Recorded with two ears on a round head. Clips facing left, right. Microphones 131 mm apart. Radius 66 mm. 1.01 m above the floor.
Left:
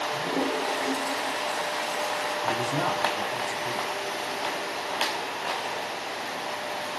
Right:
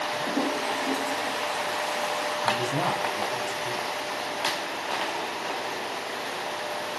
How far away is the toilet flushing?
About 3.5 m.